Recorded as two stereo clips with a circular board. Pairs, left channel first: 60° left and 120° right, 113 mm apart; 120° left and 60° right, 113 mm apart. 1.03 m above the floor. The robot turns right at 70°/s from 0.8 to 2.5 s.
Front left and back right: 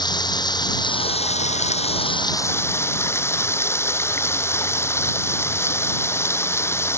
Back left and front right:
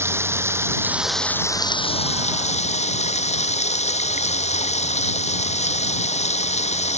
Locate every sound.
0.0 s running water: 10° left; by 7.0 s 130° left